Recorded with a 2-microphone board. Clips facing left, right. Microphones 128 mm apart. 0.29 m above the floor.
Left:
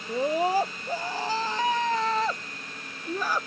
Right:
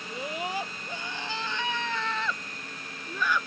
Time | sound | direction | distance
0.1 | a scream | 35° left (ahead or behind) | ?